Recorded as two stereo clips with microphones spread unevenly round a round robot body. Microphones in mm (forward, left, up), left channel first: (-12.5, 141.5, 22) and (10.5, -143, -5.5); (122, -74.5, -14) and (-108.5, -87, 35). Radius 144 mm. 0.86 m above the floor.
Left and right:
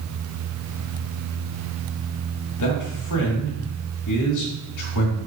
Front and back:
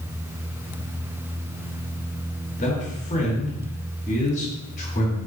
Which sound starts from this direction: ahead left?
A man speaking, at 2.6 s.